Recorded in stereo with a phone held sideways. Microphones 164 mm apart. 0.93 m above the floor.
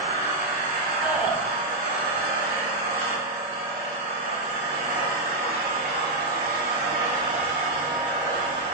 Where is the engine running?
50° right (ahead or behind), 1.5 m.